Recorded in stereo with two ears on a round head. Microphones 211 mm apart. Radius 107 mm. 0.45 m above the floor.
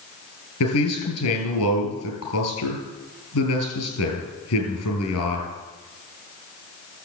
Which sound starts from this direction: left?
A man speaking, at 0.6 s.